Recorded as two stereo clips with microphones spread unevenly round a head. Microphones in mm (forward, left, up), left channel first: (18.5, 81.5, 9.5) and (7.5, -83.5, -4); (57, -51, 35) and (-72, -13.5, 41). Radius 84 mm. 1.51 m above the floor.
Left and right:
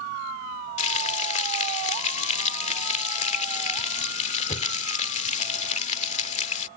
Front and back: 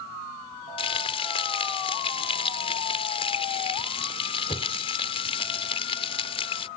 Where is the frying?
40° left.